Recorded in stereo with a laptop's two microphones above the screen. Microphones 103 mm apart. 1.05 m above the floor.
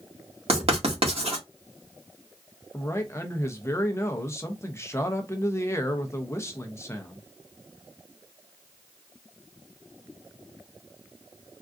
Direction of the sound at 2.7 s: 25° left (ahead or behind).